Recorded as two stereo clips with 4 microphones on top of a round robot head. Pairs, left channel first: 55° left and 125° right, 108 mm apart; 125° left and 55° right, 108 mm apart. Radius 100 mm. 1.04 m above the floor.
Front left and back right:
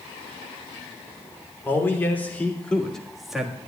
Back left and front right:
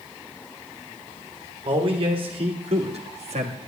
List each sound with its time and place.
1.6 s a man speaking: 15° right, 3 m; by 3.6 s 45° right, 1.5 m